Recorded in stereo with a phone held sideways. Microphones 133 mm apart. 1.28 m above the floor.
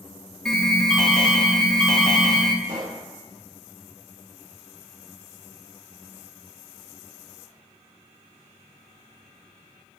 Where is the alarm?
5° left (ahead or behind), 0.9 m.